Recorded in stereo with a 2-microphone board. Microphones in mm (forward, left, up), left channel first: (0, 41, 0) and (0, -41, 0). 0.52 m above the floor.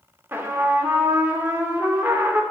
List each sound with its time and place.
0.3 s a trumpet: 25° right (ahead or behind), 0.5 m